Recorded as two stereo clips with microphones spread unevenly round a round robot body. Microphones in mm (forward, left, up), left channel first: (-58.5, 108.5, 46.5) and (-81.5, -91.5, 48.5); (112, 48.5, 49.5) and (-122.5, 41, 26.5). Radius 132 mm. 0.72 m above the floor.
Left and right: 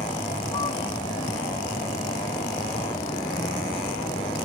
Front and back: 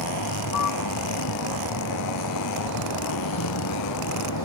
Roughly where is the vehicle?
Ahead.